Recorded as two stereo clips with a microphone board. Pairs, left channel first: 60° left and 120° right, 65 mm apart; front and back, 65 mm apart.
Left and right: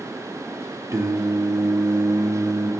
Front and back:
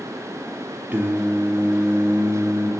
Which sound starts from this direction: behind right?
Singing, at 0.9 s.